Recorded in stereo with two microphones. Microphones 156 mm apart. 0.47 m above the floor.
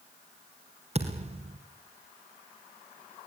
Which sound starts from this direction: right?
A thud, at 0.9 s.